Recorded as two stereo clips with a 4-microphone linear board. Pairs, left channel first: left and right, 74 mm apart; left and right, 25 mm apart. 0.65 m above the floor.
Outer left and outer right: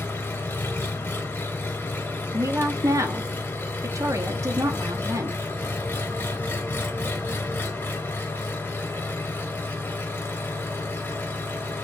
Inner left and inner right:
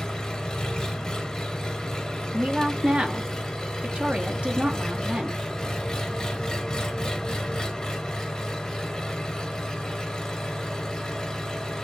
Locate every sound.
0.0 s an engine running: 25° left (ahead or behind), 0.8 m
2.3 s a woman speaking: 45° right (ahead or behind), 0.7 m